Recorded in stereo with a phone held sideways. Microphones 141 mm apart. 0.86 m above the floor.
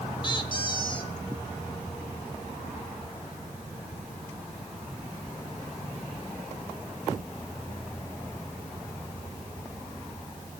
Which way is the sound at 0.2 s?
35° left (ahead or behind).